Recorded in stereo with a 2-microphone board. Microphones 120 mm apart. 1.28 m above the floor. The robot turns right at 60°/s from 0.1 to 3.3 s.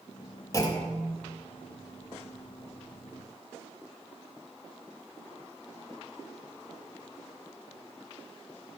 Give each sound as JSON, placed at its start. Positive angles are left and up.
{"t": 0.5, "sound": "a clunk", "azimuth_deg": 25, "distance_m": 1.6}